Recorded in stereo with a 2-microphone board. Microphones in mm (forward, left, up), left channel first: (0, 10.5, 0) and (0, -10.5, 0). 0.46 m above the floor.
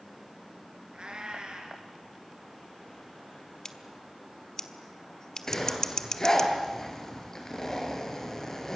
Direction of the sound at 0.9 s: 55° right (ahead or behind).